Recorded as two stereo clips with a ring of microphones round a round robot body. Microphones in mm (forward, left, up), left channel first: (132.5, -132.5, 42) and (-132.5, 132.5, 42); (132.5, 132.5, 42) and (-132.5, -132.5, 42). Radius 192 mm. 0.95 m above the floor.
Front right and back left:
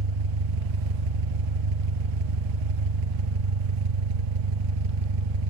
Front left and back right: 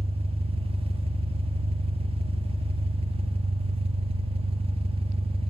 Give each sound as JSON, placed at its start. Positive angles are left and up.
{"t": 0.0, "sound": "an engine running", "azimuth_deg": 150, "distance_m": 1.3}